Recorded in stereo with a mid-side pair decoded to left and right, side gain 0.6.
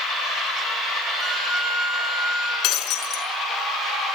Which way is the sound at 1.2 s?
20° right.